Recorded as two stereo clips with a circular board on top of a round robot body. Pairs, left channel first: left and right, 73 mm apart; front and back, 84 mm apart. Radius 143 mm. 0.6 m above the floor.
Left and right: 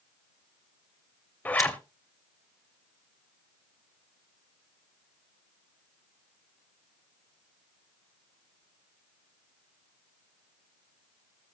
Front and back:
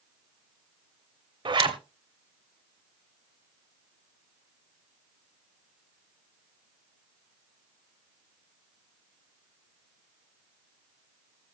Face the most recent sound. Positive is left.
turn(degrees=155)